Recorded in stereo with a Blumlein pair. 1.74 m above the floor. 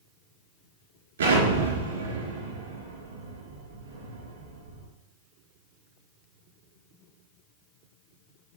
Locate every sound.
1.2 s an explosion: 70° right, 4 m